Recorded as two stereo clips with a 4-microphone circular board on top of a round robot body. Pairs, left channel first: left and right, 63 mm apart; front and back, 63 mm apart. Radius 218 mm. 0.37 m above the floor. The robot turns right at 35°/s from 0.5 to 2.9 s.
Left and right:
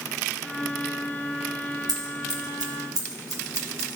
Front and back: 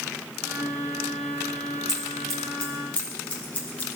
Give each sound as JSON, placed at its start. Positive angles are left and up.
{"t": 1.9, "sound": "scissors", "azimuth_deg": -100, "distance_m": 1.8}